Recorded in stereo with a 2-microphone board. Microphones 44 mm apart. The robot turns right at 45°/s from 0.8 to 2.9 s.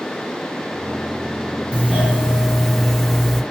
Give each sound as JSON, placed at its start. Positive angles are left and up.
{"t": 1.7, "sound": "a doorbell", "azimuth_deg": -50, "distance_m": 2.0}